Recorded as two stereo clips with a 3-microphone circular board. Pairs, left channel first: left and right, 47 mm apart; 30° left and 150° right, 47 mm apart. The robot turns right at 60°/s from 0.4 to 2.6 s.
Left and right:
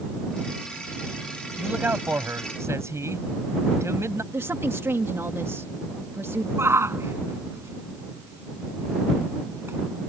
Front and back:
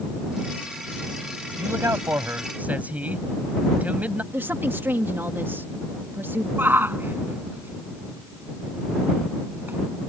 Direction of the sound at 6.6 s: 105° right.